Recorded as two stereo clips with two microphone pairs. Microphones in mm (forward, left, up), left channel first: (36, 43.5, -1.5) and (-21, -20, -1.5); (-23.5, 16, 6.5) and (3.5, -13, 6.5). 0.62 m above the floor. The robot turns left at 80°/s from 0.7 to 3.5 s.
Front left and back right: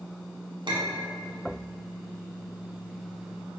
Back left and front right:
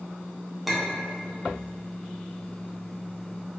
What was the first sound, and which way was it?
A clink, 135° right.